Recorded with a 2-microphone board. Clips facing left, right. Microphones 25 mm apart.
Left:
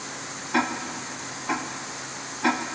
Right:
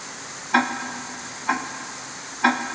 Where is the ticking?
35° right (ahead or behind), 1.8 m.